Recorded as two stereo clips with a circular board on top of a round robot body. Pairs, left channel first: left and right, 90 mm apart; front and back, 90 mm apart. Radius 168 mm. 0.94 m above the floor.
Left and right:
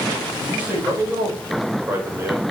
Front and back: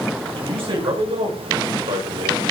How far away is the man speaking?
About 6.5 m.